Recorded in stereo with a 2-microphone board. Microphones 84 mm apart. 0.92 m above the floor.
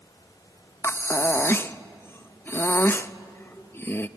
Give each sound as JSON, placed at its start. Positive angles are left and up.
{"t": 0.8, "sound": "breathing", "side_deg": 30, "distance_m": 0.5}